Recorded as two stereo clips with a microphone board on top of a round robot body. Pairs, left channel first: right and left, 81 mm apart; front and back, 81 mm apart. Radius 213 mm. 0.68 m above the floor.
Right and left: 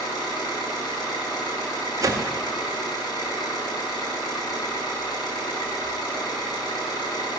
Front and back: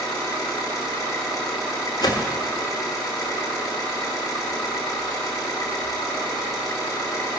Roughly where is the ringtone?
I don't hear a ringtone.